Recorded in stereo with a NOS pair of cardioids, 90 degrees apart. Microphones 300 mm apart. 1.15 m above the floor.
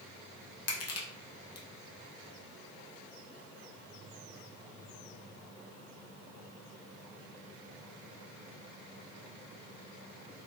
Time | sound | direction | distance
0.7 | crushing | 55° left | 0.8 m